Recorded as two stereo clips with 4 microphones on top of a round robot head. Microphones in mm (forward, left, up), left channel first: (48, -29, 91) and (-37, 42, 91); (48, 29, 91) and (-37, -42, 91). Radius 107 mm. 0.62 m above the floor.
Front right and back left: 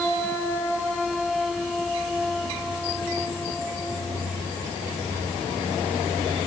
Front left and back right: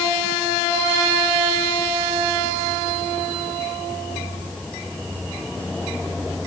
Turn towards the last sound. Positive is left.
No sound to turn to.